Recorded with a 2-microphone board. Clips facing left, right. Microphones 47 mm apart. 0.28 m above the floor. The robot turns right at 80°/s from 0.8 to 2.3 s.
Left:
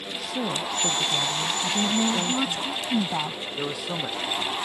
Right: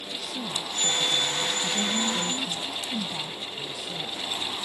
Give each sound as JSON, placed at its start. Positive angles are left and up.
{"t": 0.2, "sound": "a woman speaking", "azimuth_deg": 50}
{"t": 1.6, "sound": "a woman speaking", "azimuth_deg": 15}
{"t": 3.6, "sound": "a man speaking", "side_deg": 85}